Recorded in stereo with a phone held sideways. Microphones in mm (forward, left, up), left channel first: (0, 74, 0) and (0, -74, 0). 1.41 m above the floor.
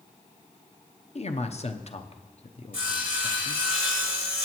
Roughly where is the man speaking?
Left.